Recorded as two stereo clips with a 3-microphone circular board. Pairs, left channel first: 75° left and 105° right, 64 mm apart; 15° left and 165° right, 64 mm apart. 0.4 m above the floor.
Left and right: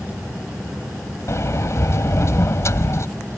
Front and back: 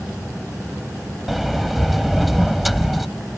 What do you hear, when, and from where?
1.3 s a sliding door: 105° left